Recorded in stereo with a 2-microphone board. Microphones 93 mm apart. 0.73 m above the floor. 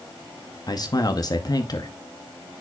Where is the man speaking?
45° left (ahead or behind), 0.8 m.